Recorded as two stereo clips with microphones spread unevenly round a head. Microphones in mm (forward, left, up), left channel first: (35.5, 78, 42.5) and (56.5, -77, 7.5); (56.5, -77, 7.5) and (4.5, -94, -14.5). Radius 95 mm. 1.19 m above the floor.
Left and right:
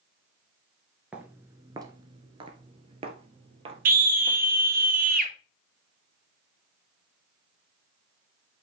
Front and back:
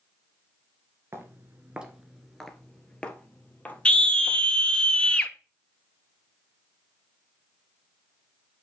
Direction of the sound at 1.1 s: 170° left.